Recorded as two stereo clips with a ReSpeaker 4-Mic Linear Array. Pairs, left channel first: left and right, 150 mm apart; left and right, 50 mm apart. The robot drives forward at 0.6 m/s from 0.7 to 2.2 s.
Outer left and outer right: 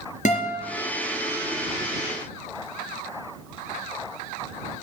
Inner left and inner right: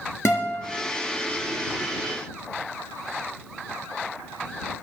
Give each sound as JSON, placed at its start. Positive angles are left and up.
{"t": 0.2, "sound": "a guitar", "side_deg": 55, "distance_m": 3.5}